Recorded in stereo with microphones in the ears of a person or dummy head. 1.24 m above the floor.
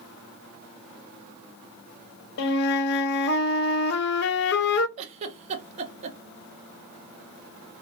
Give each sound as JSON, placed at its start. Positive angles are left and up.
{"t": 2.4, "sound": "a flute", "side_deg": 55, "distance_m": 0.5}
{"t": 5.0, "sound": "a giggle", "side_deg": -45, "distance_m": 0.7}